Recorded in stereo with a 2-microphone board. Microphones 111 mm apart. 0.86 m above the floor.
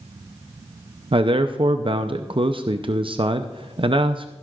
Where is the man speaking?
55° right (ahead or behind), 0.7 m.